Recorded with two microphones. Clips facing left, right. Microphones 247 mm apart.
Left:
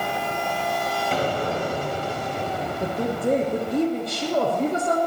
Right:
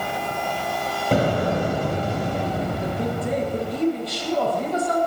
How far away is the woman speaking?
About 5 m.